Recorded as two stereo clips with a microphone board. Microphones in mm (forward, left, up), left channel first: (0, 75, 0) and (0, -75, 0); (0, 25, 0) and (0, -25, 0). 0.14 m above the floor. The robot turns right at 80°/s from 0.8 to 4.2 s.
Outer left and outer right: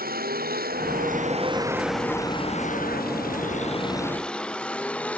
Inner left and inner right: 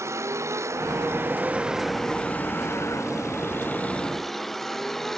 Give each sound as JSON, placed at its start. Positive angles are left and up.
{"t": 0.0, "sound": "a vehicle", "side_deg": -85}